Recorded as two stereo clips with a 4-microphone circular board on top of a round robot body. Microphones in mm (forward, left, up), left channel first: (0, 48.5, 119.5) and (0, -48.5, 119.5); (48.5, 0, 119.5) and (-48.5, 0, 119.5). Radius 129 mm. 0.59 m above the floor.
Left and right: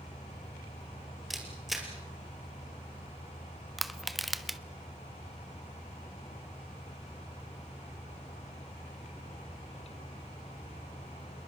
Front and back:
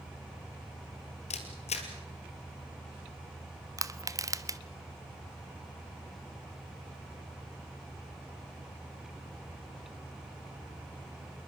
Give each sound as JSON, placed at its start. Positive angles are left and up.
{"t": 1.3, "sound": "a camera shutter", "azimuth_deg": 0, "distance_m": 2.5}
{"t": 3.8, "sound": "crushing", "azimuth_deg": 180, "distance_m": 1.1}